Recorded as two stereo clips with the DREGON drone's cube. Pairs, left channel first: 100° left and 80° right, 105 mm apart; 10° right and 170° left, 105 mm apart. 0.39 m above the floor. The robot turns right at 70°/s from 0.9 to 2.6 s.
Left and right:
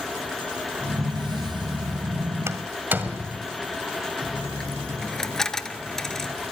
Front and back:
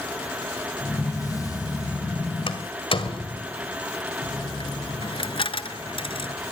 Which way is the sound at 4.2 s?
15° left.